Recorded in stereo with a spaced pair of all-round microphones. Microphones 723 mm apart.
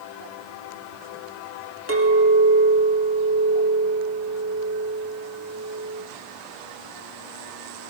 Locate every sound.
1.9 s a clink: 20° right (ahead or behind), 1.8 m